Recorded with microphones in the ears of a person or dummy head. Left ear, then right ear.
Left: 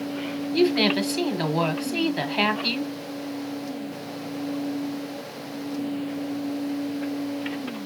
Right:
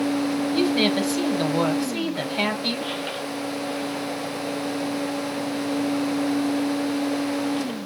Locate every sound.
0.5 s a woman speaking: 10° left (ahead or behind), 1.3 m